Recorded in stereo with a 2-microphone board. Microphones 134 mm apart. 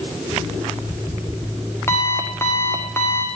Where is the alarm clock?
20° left (ahead or behind), 4 m.